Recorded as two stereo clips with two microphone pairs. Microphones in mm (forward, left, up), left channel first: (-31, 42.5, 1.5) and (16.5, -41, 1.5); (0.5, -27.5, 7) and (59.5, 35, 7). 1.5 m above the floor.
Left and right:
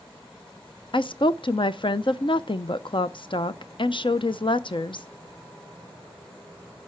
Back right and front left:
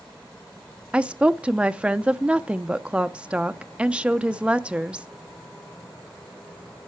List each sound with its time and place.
0.9 s a woman speaking: 120° left, 0.7 m